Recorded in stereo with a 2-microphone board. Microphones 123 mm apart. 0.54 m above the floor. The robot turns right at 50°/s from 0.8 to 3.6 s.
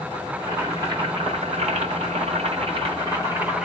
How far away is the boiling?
About 1.5 m.